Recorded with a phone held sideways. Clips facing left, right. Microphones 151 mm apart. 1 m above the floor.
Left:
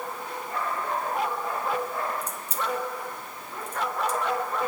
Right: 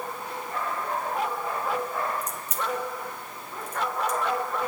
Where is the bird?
I don't hear a bird.